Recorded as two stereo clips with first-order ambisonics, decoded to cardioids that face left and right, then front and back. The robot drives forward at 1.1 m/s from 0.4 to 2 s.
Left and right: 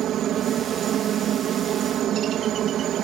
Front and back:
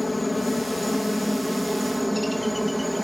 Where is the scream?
I don't hear a scream.